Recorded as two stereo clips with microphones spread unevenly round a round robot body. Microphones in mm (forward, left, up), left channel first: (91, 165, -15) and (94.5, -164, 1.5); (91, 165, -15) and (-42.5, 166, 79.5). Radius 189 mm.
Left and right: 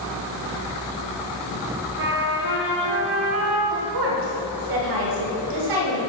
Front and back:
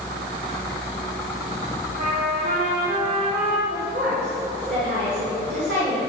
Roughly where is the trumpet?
Behind right.